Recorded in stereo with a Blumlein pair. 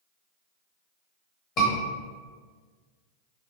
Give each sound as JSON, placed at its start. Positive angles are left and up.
{"t": 1.6, "sound": "a scream", "azimuth_deg": 30, "distance_m": 0.9}